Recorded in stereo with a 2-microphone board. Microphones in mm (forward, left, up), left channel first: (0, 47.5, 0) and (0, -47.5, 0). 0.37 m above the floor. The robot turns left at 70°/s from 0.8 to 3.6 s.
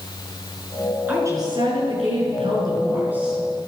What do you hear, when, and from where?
1.1 s a woman speaking: 15° right, 6 m; by 3.4 s straight behind, 6 m